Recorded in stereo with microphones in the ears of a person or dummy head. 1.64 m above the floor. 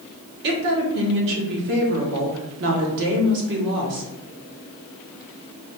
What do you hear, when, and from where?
0.4 s a woman speaking: 60° right (ahead or behind), 1.3 m